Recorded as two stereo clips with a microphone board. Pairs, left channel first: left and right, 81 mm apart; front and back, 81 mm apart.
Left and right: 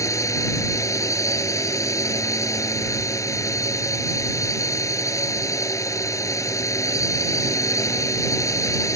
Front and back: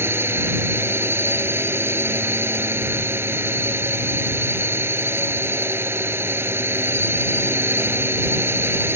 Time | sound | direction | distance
0.0 | a drone | 125° left | ?